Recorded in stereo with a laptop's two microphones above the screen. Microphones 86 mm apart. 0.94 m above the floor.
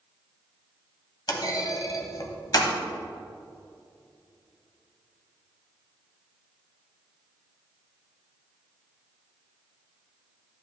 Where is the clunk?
55° left (ahead or behind), 1.3 m.